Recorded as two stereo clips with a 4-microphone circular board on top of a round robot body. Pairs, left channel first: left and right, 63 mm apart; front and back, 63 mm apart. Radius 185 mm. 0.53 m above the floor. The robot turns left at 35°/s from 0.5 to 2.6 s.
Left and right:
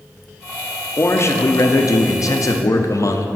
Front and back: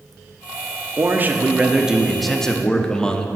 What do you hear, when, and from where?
1.0 s a man speaking: 135° left, 1.0 m; by 3.3 s 75° left, 1.0 m